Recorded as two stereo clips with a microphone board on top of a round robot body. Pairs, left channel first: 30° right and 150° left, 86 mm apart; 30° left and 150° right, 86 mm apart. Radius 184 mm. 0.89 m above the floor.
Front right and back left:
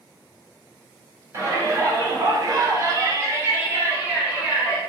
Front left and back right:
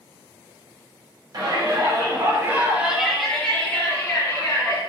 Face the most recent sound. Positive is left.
turn(degrees=75)